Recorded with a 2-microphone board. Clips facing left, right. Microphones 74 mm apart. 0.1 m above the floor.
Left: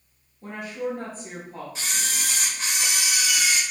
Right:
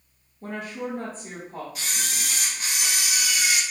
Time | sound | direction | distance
0.4 | a woman speaking | 35° right (ahead or behind) | 1.4 m
1.8 | a camera shutter | 30° left (ahead or behind) | 1.5 m